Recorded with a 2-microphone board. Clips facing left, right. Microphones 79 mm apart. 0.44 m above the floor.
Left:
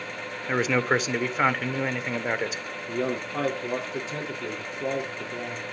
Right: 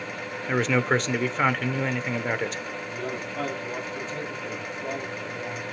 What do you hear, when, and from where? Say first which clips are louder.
0.5 s a man speaking: even; 5° left (ahead or behind), 1.2 m
2.9 s a man speaking: left 8 dB; 80° left, 6.5 m